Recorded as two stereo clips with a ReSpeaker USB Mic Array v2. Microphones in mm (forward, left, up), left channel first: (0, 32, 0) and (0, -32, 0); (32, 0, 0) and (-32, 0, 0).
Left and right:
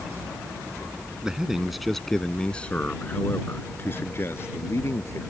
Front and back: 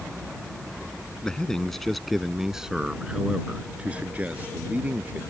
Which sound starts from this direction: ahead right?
A man speaking, at 1.2 s.